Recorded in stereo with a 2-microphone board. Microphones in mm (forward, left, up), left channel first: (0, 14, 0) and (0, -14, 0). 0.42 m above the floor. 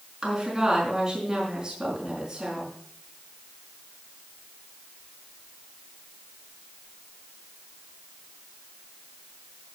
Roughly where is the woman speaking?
Right.